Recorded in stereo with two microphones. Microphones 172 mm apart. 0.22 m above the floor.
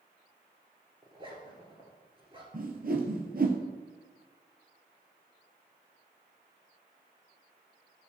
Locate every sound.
1.0 s a zipper: 30° right (ahead or behind), 1.8 m
2.5 s a whoosh: 60° right (ahead or behind), 1.1 m